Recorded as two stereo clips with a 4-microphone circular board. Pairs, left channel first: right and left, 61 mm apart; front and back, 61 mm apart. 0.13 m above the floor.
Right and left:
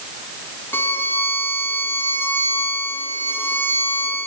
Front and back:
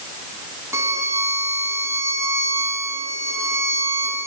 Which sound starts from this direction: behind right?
A violin, at 0.7 s.